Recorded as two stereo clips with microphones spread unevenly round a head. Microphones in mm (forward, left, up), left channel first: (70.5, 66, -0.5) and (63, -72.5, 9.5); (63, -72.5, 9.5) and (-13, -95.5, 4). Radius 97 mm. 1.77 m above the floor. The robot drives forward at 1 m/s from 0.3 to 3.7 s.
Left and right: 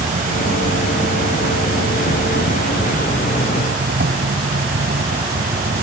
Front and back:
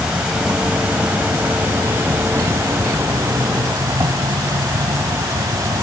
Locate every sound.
0.0 s an insect: 80° right; by 5.8 s 115° right